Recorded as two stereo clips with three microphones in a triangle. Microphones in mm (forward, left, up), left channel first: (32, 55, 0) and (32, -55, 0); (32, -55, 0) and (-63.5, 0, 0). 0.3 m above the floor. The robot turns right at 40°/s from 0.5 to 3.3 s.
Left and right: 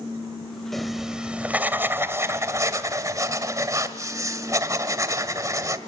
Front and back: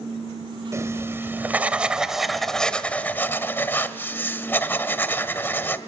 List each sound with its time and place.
0.7 s writing: 175° left, 1.4 m; by 5.8 s 80° right, 1.4 m